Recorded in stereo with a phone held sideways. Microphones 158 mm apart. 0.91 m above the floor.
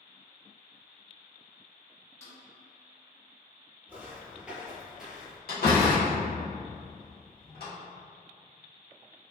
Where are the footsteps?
10° right (ahead or behind), 1.0 m; by 5.4 s 5° right (ahead or behind), 0.9 m.